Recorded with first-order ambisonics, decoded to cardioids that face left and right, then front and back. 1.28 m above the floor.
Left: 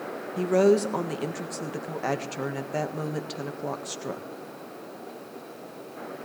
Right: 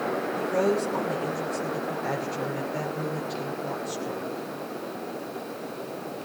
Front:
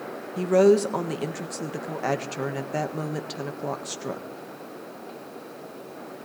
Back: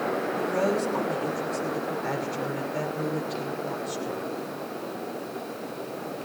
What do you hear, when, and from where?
0.4 s a woman speaking: 35° left, 1.6 m